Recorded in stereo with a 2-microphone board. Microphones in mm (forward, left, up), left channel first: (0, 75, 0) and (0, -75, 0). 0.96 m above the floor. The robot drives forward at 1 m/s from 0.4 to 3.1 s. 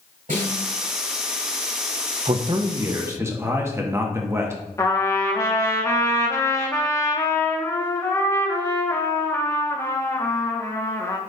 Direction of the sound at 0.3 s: 70° right (ahead or behind).